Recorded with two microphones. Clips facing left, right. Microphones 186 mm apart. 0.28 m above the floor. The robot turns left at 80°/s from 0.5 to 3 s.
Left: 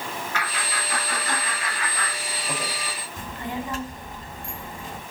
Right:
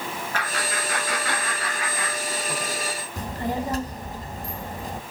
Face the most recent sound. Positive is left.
turn(degrees=-40)  # may be behind; listen again after turning